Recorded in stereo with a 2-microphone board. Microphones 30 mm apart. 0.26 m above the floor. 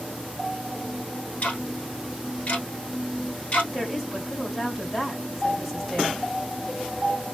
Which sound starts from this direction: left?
Ticking, at 1.4 s.